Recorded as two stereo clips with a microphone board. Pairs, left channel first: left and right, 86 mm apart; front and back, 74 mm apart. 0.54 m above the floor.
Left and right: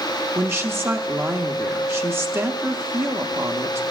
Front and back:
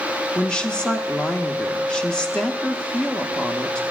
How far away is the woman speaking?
About 0.7 m.